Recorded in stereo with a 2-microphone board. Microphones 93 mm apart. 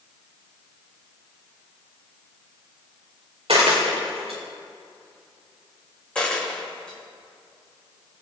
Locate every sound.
3.5 s a dropped coin: 75° right (ahead or behind), 3 m
6.2 s a dropped coin: 10° left (ahead or behind), 3.5 m